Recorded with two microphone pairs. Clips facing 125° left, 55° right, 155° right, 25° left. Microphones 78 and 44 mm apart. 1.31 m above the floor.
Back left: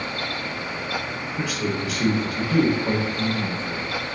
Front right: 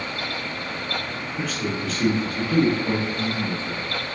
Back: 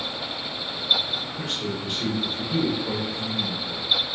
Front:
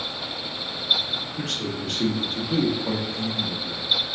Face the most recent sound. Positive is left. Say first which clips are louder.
# back left 1 dB, even
turn(degrees=45)